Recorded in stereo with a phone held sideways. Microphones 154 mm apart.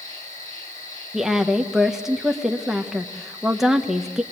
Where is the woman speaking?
5° right (ahead or behind), 1.3 m.